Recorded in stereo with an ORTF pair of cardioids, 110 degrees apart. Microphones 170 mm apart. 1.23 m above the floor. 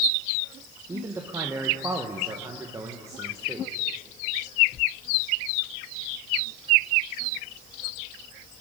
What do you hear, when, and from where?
0.9 s a man speaking: 15° right, 1.1 m